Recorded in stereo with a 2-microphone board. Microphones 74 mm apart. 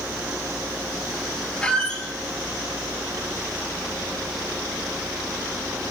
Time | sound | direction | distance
1.6 | a squeak | 15° left (ahead or behind) | 0.8 m